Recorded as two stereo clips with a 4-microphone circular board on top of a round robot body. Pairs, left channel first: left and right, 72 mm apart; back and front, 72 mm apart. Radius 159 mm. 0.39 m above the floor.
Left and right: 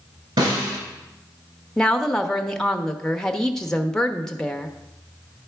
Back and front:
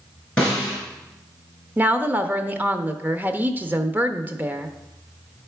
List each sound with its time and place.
0.4 s a snare drum: 105° right, 4 m
1.8 s a woman speaking: 20° left, 1.0 m